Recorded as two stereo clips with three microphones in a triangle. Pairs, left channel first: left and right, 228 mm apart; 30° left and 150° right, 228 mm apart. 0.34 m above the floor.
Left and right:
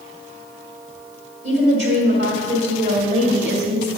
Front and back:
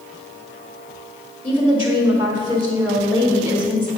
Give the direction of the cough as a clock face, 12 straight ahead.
No cough in this recording.